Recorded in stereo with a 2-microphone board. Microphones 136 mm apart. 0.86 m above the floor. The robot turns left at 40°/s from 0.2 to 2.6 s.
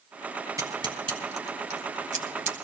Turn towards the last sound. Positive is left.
turn(degrees=-60)  # may be behind; listen again after turning